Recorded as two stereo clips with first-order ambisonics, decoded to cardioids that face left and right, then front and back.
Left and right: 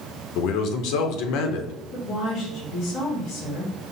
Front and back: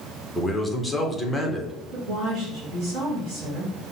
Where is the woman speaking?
145° left, 1.9 m.